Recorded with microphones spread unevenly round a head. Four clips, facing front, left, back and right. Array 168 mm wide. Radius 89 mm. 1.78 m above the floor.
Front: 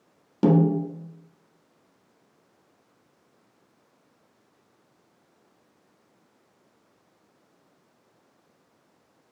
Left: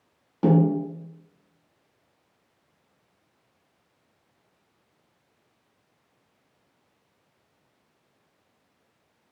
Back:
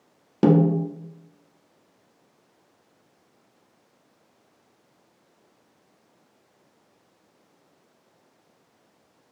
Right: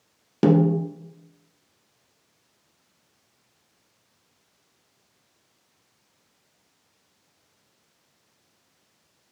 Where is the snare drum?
90° right, 0.7 m.